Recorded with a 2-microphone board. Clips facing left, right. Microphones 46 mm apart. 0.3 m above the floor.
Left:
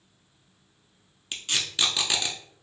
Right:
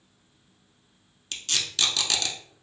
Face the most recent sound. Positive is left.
turn(degrees=20)  # may be behind; listen again after turning